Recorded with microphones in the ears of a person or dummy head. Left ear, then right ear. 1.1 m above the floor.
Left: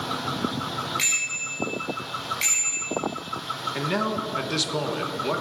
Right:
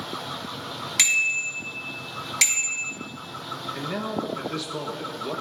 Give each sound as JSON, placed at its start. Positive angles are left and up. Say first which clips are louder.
{"t": 1.0, "sound": "a bicycle bell", "louder": "right 7 dB", "side_deg": -55, "distance_m": 6.0}
{"t": 3.8, "sound": "a man speaking", "louder": "left 4 dB", "side_deg": 20, "distance_m": 1.4}